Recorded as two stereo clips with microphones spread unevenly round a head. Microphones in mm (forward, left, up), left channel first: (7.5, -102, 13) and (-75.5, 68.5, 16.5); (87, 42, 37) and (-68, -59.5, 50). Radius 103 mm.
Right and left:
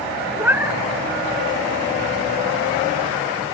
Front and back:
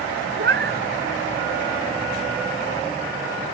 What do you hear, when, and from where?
0.4 s a cat meowing: 170° right